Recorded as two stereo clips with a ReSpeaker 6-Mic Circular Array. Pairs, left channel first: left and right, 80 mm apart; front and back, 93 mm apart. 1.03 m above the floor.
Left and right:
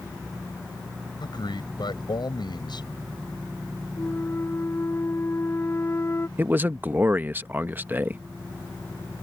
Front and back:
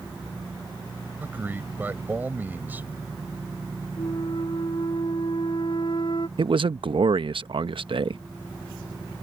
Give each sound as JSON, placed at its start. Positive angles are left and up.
{"t": 1.2, "sound": "a man speaking", "azimuth_deg": 110}
{"t": 4.0, "sound": "a flute", "azimuth_deg": 30}
{"t": 6.4, "sound": "a man speaking", "azimuth_deg": -155}